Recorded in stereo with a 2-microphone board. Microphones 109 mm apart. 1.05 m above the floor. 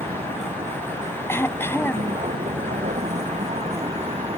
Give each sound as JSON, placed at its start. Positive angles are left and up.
{"t": 0.0, "sound": "a vehicle", "side_deg": -85}
{"t": 1.3, "sound": "throat clearing", "side_deg": 20}